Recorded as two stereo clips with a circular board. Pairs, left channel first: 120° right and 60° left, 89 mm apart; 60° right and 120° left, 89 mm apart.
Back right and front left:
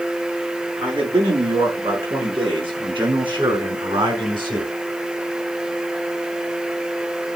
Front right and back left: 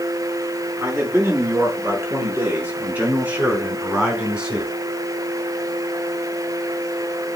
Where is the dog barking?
I don't hear a dog barking.